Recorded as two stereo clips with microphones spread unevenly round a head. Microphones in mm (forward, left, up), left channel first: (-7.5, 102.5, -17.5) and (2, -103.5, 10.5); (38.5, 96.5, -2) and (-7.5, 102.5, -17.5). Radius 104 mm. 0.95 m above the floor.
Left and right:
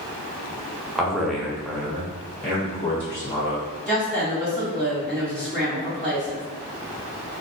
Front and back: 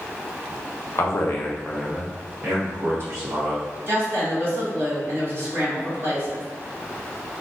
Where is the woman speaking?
175° left, 1.7 m.